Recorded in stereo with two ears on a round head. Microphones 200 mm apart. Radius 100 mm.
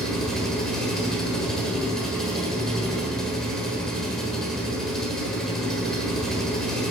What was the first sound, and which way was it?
An engine running, centre (ahead or behind).